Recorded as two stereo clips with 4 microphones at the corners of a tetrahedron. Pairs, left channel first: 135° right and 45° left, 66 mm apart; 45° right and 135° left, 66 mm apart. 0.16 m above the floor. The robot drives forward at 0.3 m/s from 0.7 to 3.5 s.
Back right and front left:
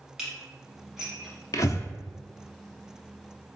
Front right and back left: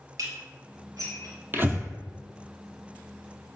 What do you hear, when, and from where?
0.2 s dishes clattering: 120° left, 1.9 m; by 1.4 s 125° left, 2 m
1.5 s breathing: 165° right, 0.6 m; by 1.9 s 170° right, 0.7 m